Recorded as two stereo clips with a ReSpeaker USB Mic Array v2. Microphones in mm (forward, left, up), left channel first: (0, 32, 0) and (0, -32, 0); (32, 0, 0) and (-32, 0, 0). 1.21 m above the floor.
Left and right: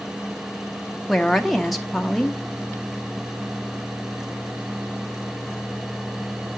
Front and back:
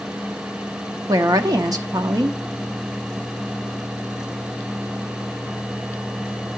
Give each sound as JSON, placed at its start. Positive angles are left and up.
{"t": 1.1, "sound": "a woman speaking", "azimuth_deg": 180, "distance_m": 0.5}